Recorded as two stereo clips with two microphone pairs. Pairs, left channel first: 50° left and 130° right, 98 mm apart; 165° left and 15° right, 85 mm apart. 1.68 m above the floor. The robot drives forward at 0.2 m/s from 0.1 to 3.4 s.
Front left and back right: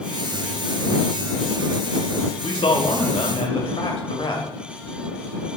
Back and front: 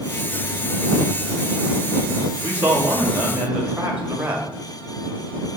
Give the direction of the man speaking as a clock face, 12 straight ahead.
10 o'clock.